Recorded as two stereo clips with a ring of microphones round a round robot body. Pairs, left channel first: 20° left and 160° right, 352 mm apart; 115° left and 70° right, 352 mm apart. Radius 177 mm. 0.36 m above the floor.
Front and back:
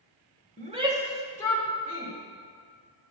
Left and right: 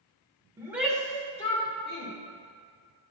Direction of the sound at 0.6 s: 135° right.